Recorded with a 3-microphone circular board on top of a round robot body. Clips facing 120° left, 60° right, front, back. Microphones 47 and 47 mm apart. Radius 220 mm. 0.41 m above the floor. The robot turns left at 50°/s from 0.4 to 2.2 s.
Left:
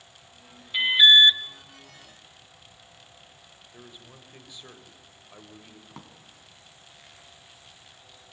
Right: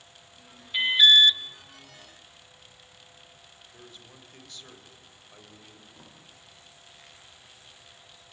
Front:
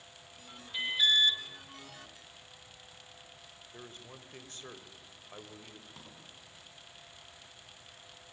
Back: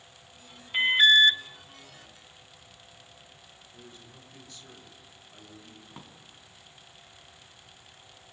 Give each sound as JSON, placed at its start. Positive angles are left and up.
{"t": 0.7, "sound": "an alarm", "azimuth_deg": -160, "distance_m": 1.1}
{"t": 3.7, "sound": "a man speaking", "azimuth_deg": 45, "distance_m": 3.5}
{"t": 5.9, "sound": "a drawer", "azimuth_deg": 115, "distance_m": 3.0}